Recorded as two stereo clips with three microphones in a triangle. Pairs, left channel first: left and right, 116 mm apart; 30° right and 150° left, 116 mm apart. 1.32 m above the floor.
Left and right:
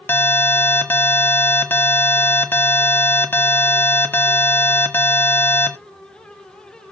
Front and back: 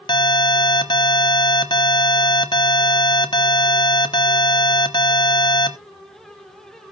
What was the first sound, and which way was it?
An alarm, 15° left.